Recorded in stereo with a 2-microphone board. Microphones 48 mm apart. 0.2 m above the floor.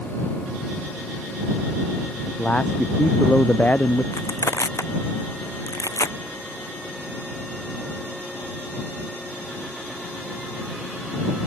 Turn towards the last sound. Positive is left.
turn(degrees=85)